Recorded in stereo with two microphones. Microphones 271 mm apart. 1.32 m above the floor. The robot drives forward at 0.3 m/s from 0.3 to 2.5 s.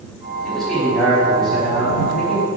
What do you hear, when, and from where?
0.4 s a man speaking: 5° left (ahead or behind), 3.5 m